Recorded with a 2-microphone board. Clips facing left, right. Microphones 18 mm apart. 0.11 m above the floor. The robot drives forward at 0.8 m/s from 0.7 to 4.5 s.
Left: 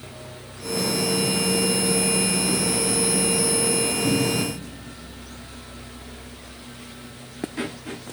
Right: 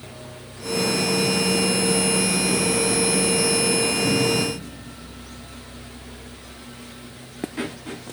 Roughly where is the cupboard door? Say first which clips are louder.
Right 2 dB; left.